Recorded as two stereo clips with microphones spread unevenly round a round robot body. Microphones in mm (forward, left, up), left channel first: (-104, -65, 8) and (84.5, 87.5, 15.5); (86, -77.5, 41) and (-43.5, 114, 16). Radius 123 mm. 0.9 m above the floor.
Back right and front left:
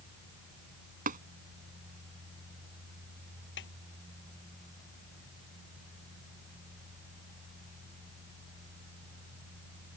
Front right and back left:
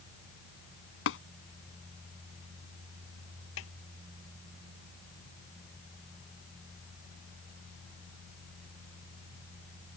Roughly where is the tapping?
Ahead.